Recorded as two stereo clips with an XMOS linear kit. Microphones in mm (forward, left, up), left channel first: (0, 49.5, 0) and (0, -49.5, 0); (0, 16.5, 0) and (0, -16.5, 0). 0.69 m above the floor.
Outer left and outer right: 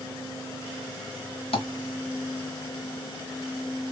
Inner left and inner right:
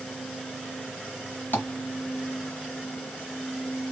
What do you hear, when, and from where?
1.5 s tapping: 80° left, 1.3 m